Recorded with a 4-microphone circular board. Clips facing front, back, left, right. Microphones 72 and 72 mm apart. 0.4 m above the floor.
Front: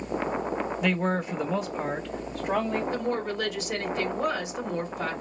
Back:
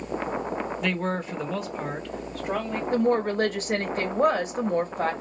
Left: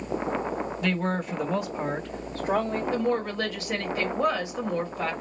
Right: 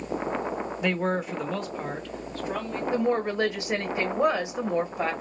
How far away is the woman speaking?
About 1.3 m.